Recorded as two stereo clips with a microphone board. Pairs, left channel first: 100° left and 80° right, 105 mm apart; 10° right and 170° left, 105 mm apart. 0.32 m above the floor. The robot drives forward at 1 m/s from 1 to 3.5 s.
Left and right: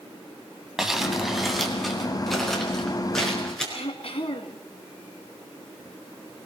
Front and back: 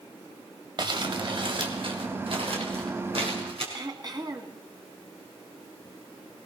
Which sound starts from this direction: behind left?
Throat clearing, at 3.7 s.